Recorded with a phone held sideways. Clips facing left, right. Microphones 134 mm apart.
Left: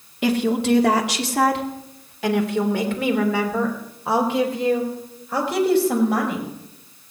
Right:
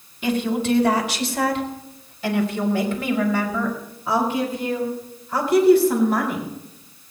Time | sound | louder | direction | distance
0.2 | a woman speaking | left 2 dB | 75° left (ahead or behind) | 1.9 m